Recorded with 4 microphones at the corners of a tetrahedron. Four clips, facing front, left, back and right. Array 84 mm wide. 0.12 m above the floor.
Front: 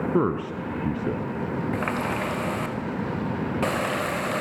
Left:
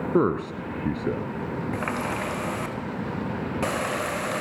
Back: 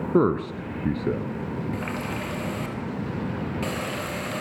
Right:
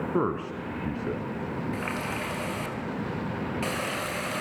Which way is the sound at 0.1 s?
125° left.